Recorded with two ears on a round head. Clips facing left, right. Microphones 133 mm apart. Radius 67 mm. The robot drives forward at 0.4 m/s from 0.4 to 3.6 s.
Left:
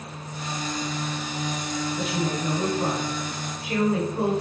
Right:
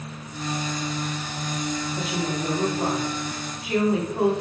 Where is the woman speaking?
25° right (ahead or behind), 3.5 m; by 4.3 s 20° right (ahead or behind), 4 m.